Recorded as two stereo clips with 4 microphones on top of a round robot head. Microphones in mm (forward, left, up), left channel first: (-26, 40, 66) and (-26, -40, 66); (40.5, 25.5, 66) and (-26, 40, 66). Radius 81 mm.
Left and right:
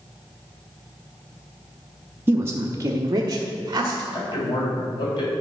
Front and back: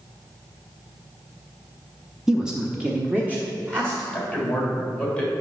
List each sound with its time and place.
2.3 s a woman speaking: 115° right, 0.8 m; by 4.0 s 125° right, 1.5 m
4.1 s a man speaking: 60° left, 3 m